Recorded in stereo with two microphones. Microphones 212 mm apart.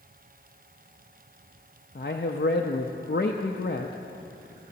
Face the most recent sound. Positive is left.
turn(degrees=55)  # may be behind; listen again after turning